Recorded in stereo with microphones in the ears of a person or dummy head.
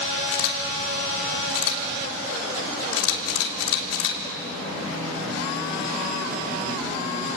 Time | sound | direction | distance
0.3 | a camera shutter | 75° left (ahead or behind) | 3 m